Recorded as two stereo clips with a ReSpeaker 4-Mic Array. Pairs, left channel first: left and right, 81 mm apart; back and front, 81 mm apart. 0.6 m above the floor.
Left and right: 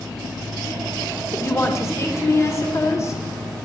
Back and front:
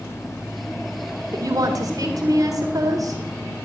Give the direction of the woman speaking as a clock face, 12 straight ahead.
11 o'clock.